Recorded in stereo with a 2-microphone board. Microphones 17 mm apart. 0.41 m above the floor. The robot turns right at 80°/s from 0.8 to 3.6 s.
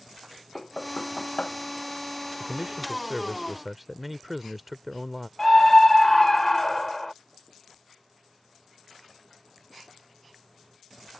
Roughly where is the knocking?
Left.